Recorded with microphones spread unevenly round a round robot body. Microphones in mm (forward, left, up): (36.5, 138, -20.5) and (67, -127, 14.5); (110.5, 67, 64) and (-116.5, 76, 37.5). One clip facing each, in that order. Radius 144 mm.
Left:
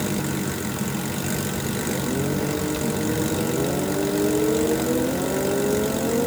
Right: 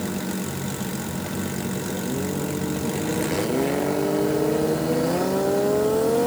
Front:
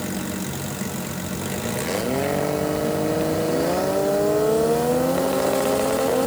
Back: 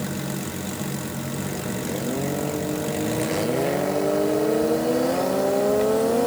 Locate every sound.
Only background noise.